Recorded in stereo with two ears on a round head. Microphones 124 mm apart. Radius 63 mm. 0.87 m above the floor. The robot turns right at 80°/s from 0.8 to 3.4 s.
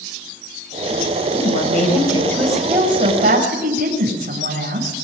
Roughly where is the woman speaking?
Left.